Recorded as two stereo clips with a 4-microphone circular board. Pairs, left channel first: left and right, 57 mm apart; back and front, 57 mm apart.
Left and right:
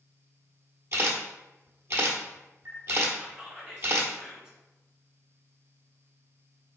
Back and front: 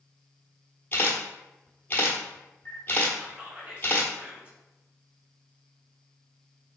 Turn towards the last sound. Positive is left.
turn(degrees=-30)